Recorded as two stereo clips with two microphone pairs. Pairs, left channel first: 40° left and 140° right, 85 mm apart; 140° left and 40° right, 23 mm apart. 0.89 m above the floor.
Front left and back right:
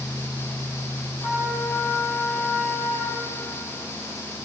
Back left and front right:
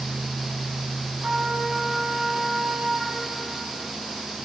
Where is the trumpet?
75° right, 6 m.